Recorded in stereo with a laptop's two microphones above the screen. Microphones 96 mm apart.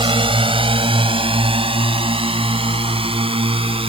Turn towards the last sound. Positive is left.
turn(degrees=-70)  # may be behind; listen again after turning